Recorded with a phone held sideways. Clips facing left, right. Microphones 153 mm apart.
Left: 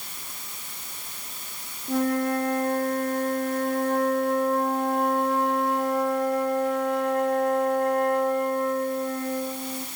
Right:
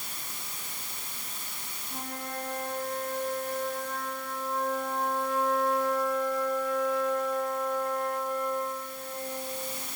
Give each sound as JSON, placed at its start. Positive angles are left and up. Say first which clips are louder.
{"t": 1.9, "sound": "a flute", "louder": "left 16 dB", "side_deg": 75, "distance_m": 5.0}